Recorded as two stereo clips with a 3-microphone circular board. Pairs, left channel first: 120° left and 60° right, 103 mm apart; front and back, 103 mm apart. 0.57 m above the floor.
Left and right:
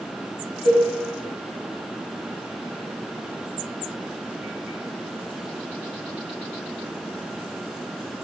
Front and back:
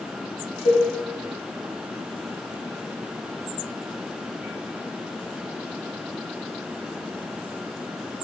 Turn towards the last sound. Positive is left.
turn(degrees=-35)